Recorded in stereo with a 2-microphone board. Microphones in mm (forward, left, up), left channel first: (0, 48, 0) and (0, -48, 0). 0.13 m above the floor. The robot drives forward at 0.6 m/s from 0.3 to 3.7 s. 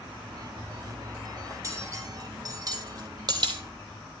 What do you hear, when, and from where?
1.5 s cutlery clinking: 30° right (ahead or behind), 3 m; by 3.6 s 50° right (ahead or behind), 2.0 m